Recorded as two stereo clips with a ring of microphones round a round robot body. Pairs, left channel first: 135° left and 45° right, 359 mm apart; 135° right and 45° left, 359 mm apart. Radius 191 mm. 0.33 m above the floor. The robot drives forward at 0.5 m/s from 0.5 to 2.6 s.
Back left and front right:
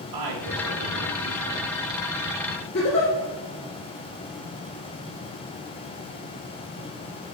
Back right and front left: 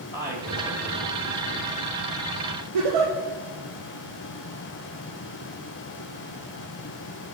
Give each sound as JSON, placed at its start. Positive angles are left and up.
{"t": 0.1, "sound": "a woman speaking", "azimuth_deg": -60, "distance_m": 1.7}
{"t": 2.7, "sound": "a giggle", "azimuth_deg": 75, "distance_m": 3.0}